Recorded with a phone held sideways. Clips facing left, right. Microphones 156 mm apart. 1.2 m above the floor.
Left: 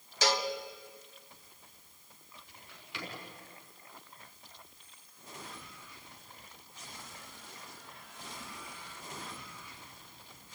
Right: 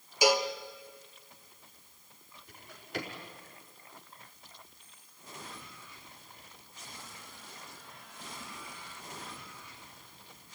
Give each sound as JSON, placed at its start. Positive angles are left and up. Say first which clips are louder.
{"t": 0.2, "sound": "a cowbell", "louder": "right 5 dB", "side_deg": -15, "distance_m": 1.2}
{"t": 2.5, "sound": "a drawer", "louder": "right 11 dB", "side_deg": -45, "distance_m": 4.5}